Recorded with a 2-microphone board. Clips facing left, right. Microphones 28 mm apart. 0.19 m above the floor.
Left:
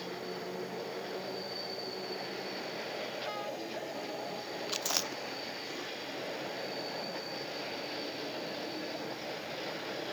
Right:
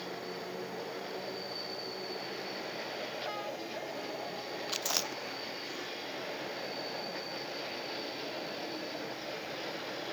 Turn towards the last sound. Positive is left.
turn(degrees=5)  # may be behind; listen again after turning